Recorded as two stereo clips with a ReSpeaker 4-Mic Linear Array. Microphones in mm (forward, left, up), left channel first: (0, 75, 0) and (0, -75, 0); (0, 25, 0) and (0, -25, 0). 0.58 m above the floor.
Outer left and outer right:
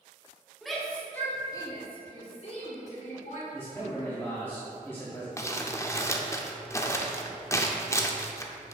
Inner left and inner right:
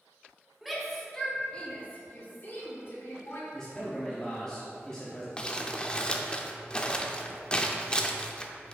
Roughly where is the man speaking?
Centre.